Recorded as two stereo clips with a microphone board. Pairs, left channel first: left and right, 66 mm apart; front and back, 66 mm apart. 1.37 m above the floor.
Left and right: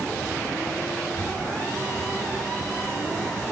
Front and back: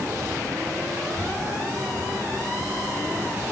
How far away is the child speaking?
About 3.5 m.